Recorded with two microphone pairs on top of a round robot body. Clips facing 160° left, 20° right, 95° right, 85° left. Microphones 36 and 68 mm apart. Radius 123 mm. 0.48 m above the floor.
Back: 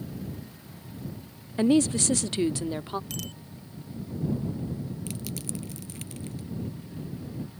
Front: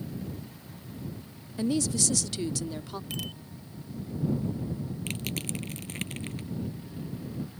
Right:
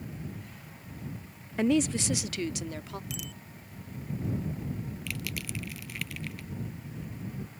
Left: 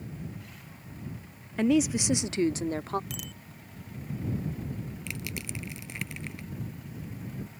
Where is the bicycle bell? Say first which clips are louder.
Front 1 dB, even; 45° left.